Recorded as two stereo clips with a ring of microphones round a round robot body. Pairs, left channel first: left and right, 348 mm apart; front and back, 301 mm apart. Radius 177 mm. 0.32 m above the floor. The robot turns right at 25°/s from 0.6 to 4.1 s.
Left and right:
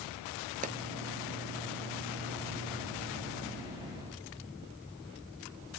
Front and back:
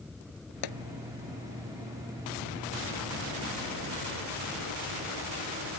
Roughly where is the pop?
Ahead.